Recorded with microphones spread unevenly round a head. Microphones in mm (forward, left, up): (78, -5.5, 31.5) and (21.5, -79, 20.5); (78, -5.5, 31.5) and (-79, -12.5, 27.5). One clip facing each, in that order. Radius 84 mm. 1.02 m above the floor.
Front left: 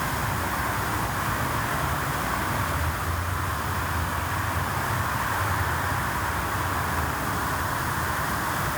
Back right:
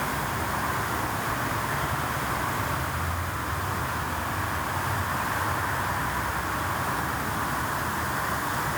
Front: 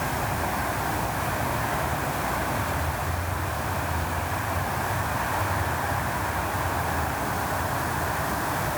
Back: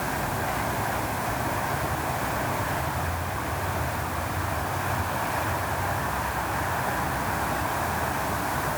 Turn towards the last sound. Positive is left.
No sound to turn to.